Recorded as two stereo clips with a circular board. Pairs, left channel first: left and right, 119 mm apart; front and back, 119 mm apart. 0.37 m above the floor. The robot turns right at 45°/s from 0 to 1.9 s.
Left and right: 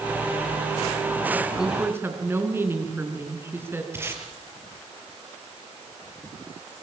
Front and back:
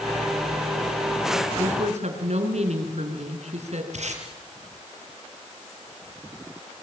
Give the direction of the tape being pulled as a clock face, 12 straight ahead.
5 o'clock.